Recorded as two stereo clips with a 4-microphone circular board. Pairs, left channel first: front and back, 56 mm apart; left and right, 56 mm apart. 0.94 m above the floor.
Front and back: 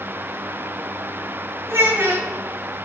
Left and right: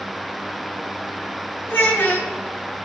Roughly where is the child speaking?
Behind left.